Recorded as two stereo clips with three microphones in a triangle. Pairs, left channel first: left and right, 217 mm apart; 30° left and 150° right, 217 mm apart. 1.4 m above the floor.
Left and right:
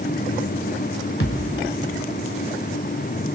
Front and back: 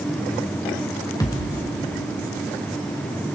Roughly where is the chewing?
No chewing in this recording.